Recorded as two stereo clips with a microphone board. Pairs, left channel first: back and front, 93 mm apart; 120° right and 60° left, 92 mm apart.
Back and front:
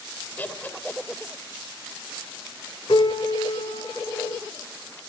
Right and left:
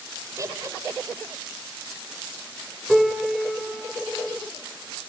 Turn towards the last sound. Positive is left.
turn(degrees=150)